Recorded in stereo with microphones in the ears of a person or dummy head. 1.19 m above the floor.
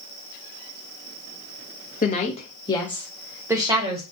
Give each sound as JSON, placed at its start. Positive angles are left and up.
{"t": 2.0, "sound": "a woman speaking", "side_deg": 45, "distance_m": 0.9}